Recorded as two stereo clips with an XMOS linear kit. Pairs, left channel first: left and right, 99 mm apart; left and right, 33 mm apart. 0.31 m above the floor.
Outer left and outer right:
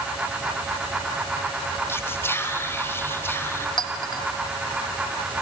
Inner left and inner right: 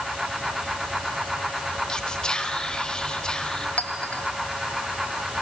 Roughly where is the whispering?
Left.